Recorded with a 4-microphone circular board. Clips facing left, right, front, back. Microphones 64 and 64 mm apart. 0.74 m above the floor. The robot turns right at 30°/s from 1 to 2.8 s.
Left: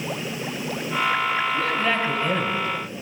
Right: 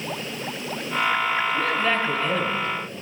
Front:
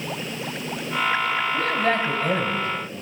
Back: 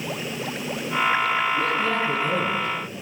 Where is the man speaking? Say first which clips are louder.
Even, front 1 dB; straight ahead, 2.5 m; by 2.7 s 35° left, 2.5 m.